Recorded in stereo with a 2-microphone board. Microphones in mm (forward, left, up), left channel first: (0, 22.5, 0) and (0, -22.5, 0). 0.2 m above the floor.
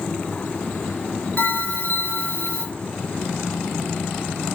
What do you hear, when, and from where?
1.4 s a bell: 35° left (ahead or behind), 2.5 m